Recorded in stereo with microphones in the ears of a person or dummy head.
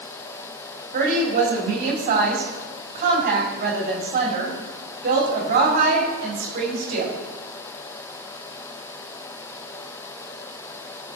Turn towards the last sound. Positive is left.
turn(degrees=-50)  # may be behind; listen again after turning